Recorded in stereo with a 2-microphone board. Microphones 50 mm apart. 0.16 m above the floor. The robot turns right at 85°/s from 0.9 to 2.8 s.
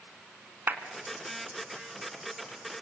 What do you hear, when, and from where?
0.7 s a clap: 40° right (ahead or behind), 1.3 m